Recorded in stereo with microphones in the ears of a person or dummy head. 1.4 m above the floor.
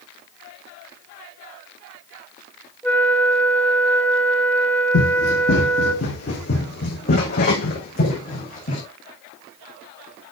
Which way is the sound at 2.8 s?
10° left (ahead or behind).